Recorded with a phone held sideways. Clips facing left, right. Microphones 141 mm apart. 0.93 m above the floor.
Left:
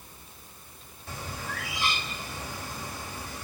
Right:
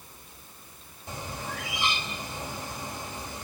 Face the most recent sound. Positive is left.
turn(degrees=-20)  # may be behind; listen again after turning